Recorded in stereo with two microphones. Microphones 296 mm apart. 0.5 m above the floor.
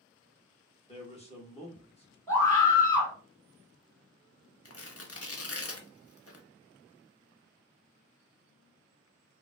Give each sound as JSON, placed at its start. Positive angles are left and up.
{"t": 0.9, "sound": "a man speaking", "side_deg": 20, "distance_m": 0.7}
{"t": 2.3, "sound": "a scream", "side_deg": 10, "distance_m": 1.9}
{"t": 4.7, "sound": "tearing paper", "side_deg": 50, "distance_m": 0.5}